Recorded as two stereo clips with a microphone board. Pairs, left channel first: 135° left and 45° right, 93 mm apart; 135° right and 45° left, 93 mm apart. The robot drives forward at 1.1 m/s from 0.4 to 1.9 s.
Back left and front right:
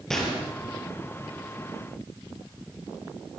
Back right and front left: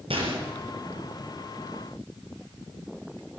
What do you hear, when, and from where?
0.1 s a gunshot: 50° left, 4.5 m